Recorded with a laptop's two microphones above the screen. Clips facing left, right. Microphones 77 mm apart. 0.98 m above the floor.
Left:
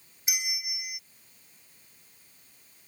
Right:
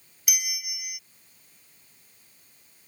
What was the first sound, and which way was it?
A bell, 25° left (ahead or behind).